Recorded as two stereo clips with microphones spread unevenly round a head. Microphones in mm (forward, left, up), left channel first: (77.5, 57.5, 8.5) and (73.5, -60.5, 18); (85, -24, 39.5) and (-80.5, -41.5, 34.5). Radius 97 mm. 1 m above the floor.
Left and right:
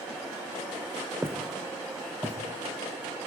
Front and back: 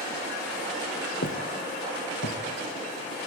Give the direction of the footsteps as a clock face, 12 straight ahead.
1 o'clock.